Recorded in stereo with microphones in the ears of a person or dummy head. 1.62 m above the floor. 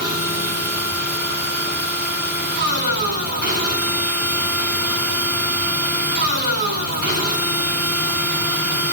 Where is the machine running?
55° right (ahead or behind), 6 m.